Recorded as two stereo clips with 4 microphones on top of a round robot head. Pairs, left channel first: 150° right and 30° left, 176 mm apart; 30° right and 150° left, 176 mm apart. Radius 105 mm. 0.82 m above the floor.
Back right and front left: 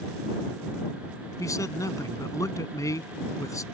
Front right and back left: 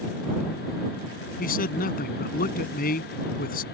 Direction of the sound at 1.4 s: 75° right.